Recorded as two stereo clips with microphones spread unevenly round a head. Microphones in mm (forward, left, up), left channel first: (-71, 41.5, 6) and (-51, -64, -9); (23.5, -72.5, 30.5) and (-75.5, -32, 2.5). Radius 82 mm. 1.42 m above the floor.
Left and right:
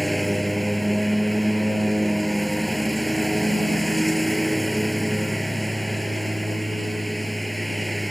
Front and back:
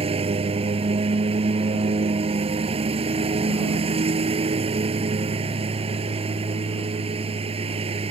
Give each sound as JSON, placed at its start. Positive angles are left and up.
{"t": 0.0, "sound": "a lawn mower", "azimuth_deg": -170}